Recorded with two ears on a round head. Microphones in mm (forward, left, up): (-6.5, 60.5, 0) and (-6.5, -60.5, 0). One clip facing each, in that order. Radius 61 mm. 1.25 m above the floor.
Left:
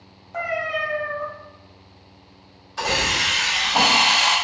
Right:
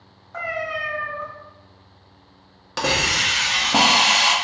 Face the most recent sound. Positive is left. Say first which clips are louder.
# right 1 dB
turn(degrees=-75)  # may be behind; listen again after turning